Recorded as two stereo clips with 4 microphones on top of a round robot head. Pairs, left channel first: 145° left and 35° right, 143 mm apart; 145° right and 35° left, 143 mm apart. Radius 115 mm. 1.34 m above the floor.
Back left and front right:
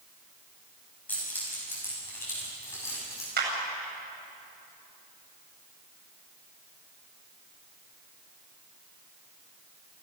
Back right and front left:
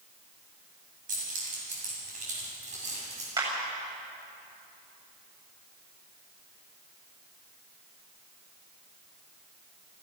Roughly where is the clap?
Ahead right.